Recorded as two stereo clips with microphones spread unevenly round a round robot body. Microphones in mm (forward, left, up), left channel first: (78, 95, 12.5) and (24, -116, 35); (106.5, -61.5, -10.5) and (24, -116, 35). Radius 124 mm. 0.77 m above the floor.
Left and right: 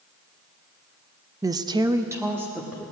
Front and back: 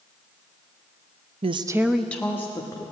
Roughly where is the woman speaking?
Behind.